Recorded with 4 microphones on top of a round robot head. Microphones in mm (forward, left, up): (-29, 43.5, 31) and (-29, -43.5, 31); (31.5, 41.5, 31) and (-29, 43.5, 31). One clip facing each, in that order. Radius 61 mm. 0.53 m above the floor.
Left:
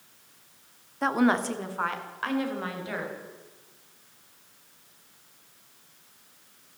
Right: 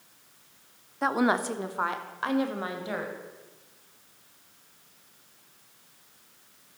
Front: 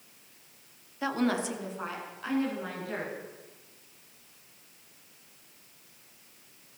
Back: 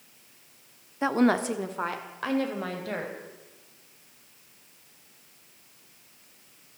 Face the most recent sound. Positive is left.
turn(degrees=-155)